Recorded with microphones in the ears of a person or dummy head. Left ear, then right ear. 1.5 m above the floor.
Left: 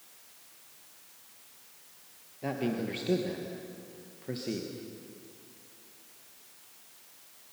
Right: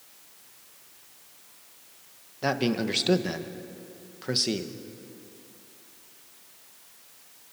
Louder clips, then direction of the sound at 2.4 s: Right 7 dB; 55° right (ahead or behind).